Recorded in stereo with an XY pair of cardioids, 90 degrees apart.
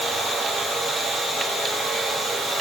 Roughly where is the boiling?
I don't hear boiling.